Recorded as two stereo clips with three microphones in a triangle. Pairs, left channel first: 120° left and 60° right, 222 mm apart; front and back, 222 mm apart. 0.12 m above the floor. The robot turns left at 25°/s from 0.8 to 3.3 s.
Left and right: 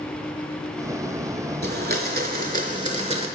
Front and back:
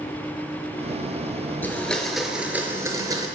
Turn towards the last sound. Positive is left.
turn(degrees=-120)